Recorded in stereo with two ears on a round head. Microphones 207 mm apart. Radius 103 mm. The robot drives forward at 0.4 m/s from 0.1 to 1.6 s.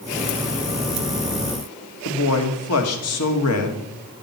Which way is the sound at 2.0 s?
75° left (ahead or behind).